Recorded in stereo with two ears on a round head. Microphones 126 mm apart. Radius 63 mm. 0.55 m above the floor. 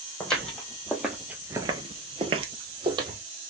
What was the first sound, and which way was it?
Footsteps, 5° left (ahead or behind).